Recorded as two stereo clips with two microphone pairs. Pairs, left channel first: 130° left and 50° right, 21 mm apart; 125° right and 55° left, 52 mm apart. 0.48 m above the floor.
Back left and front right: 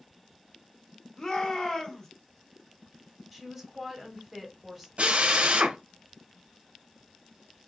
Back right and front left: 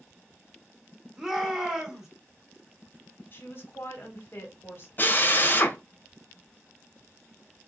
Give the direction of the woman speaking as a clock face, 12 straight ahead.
4 o'clock.